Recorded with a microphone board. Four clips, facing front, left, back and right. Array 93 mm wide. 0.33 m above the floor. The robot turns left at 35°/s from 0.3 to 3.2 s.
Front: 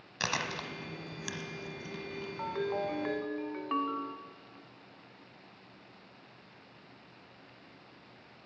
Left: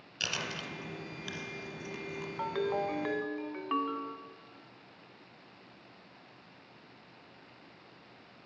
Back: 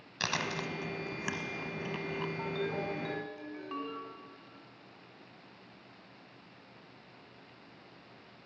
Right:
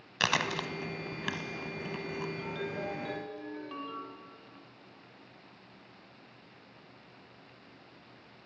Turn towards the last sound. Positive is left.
turn(degrees=50)